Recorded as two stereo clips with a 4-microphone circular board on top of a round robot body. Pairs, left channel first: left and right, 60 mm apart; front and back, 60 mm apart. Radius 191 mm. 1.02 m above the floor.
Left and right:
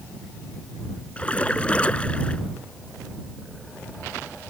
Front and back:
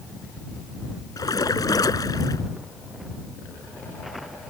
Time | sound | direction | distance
1.2 | a splash | 20° left | ?